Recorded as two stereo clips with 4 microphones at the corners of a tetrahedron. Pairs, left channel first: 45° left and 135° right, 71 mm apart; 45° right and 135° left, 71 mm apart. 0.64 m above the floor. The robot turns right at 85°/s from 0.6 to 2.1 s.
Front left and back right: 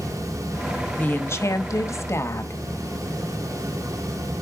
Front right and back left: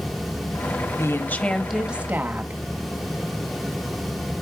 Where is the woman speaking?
20° right, 1.0 m; by 2.6 s 80° left, 1.0 m.